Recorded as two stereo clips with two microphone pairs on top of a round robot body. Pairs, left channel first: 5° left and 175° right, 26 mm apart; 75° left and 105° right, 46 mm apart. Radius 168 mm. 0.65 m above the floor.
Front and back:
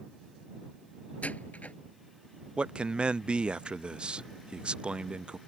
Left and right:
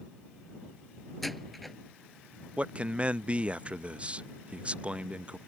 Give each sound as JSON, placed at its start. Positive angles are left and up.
{"t": 1.2, "sound": "a door slam", "azimuth_deg": -15}
{"t": 2.6, "sound": "a man speaking", "azimuth_deg": -165}